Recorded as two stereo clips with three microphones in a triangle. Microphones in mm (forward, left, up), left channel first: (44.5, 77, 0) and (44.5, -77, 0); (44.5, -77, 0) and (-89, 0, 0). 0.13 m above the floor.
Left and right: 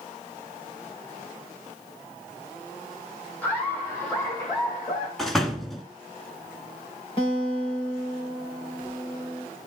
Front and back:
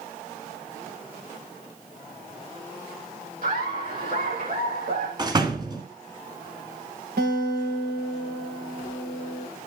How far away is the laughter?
About 7 m.